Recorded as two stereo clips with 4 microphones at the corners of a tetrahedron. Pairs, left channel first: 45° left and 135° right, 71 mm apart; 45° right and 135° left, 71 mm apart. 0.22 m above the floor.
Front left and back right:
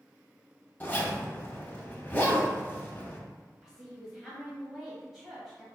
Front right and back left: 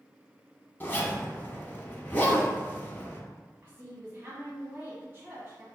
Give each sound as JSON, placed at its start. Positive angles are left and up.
{"t": 0.8, "sound": "a zipper", "azimuth_deg": 0, "distance_m": 0.8}
{"t": 3.6, "sound": "a woman speaking", "azimuth_deg": 150, "distance_m": 1.1}